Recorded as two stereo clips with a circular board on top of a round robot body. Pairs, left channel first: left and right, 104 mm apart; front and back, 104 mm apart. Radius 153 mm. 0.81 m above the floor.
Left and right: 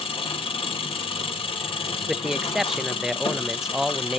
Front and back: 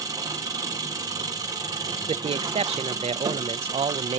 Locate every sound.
0.0 s an engine running: 125° left, 2 m
2.1 s a man speaking: 175° right, 0.5 m